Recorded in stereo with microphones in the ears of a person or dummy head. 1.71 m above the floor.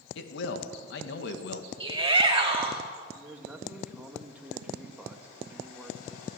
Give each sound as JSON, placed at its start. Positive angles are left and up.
{"t": 0.1, "sound": "a man speaking", "side_deg": 70, "distance_m": 2.0}
{"t": 1.8, "sound": "a shout", "side_deg": -25, "distance_m": 3.0}
{"t": 3.1, "sound": "a man speaking", "side_deg": -5, "distance_m": 2.5}